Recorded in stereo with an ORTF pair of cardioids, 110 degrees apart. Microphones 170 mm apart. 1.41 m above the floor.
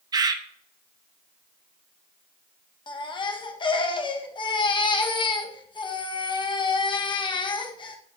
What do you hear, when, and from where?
0.1 s a bird: 25° right, 0.8 m
2.9 s a baby crying: 30° left, 1.1 m